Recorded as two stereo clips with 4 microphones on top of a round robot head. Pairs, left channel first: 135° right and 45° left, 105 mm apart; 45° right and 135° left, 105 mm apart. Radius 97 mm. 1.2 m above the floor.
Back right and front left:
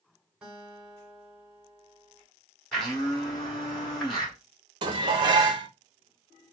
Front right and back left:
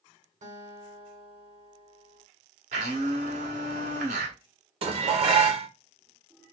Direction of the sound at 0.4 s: 125° left.